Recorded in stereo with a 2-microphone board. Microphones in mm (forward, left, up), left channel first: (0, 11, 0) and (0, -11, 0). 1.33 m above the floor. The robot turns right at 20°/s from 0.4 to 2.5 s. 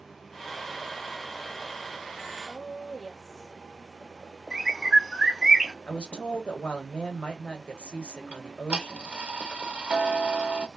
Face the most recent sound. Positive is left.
turn(degrees=-60)  # may be behind; listen again after turning